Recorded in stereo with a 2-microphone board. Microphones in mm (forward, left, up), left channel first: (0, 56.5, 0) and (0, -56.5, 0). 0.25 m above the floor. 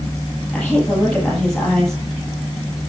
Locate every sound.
0.5 s a woman speaking: 5° left (ahead or behind), 7.5 m